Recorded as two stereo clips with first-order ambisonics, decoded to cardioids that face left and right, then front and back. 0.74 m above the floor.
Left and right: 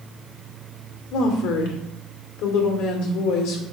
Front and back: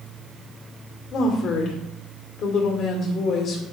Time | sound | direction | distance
1.1 | a woman speaking | 60° left | 1.7 m